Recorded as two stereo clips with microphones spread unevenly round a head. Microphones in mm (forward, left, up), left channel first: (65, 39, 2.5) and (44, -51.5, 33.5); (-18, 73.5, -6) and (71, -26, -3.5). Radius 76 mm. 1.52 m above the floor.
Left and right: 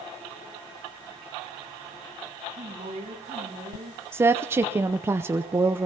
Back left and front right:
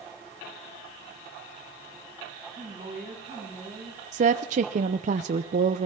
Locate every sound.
2.5 s a woman speaking: 115° right, 10 m
4.1 s a woman speaking: 60° right, 0.6 m